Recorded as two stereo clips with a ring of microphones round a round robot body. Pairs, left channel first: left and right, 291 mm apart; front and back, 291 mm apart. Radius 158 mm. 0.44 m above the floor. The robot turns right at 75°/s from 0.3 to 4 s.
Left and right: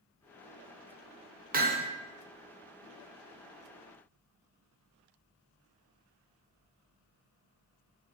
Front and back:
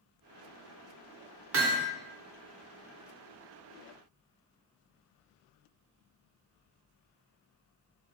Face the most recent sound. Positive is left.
turn(degrees=35)